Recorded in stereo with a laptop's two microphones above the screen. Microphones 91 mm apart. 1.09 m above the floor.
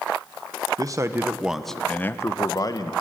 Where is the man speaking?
40° right (ahead or behind), 0.9 m; by 2.9 s 50° left (ahead or behind), 1.3 m.